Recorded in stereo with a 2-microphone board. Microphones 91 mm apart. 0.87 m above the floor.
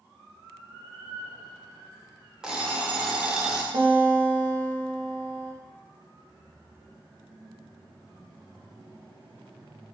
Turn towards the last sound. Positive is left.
turn(degrees=-55)  # may be behind; listen again after turning